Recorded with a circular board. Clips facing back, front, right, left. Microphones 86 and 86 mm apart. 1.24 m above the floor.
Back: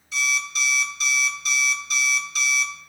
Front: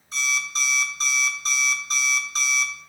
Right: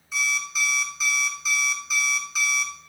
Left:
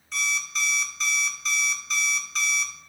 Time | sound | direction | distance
0.1 | an alarm clock | 10° right | 0.8 m